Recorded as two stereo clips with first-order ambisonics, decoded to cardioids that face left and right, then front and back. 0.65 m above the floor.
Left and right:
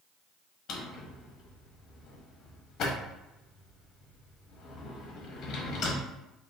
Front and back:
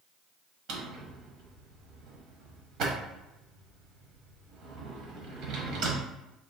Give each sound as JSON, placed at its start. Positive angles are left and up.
{"t": 0.7, "sound": "a drawer", "azimuth_deg": 135, "distance_m": 0.9}